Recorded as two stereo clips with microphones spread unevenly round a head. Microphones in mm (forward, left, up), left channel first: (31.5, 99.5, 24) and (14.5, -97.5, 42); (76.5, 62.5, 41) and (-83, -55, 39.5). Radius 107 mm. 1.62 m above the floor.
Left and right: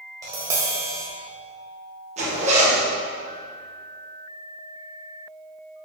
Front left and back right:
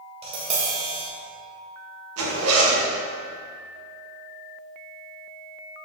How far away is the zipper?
About 1.6 m.